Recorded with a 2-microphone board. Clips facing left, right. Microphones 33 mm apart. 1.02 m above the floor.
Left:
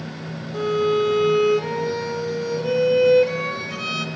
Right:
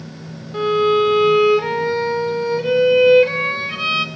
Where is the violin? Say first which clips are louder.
Right 5 dB; 40° right (ahead or behind), 2.5 m.